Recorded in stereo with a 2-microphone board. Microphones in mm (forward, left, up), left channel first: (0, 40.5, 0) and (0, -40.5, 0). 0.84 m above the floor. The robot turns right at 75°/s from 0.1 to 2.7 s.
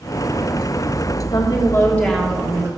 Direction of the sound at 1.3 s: 115° left.